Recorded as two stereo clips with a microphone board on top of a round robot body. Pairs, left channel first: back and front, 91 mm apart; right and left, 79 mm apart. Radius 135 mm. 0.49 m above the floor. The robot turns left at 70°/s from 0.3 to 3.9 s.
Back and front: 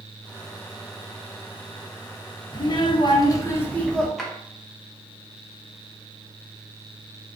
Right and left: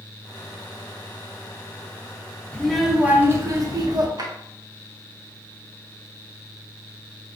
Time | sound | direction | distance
2.5 | a child speaking | 160° right | 0.8 m
4.2 | a drawer | 95° left | 0.8 m